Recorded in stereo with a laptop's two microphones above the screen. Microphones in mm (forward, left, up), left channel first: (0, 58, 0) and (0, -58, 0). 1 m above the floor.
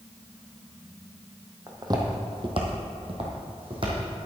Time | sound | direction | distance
1.7 | footsteps | 30° right (ahead or behind) | 1.9 m